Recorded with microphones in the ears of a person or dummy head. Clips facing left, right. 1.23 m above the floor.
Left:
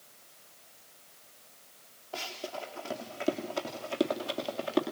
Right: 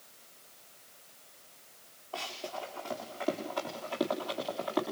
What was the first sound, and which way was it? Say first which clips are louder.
Running footsteps: left 1 dB; 20° left (ahead or behind).